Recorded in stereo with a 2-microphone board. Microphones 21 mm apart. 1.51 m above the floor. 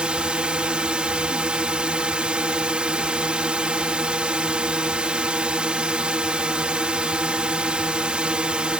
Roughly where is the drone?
Right.